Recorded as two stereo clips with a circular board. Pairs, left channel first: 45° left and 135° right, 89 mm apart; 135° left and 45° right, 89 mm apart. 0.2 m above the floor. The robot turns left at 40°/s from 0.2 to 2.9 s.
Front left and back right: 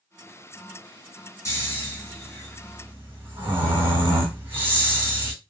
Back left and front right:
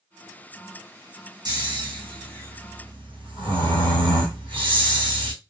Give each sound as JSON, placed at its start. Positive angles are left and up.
{"t": 1.4, "sound": "snoring", "azimuth_deg": -10, "distance_m": 1.9}